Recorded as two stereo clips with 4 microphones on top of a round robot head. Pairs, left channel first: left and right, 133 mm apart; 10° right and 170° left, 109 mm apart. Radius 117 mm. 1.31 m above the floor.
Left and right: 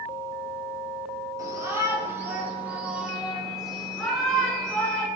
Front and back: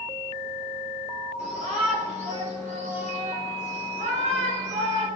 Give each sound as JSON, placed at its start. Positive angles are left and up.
{"t": 1.4, "sound": "a shout", "azimuth_deg": -155, "distance_m": 4.0}